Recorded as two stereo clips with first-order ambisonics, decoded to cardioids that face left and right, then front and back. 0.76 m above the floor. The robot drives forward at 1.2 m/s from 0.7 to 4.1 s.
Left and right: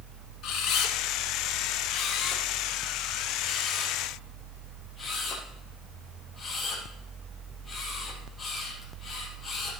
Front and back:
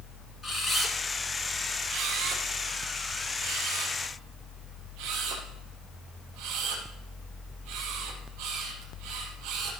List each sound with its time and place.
0.4 s a camera shutter: 65° left, 1.3 m; by 9.7 s 165° left, 3.5 m